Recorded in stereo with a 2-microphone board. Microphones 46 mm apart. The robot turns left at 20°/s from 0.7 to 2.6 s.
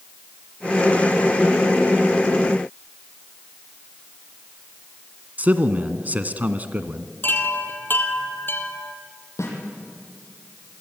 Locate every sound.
5.4 s a man speaking: 35° right (ahead or behind), 1.5 m
7.2 s a chime: 45° left (ahead or behind), 2 m
9.4 s a snare drum: 80° left, 7.5 m